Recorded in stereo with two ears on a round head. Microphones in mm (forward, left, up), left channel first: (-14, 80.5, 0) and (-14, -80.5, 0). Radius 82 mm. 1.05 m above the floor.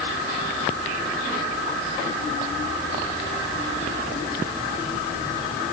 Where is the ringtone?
No ringtone in this recording.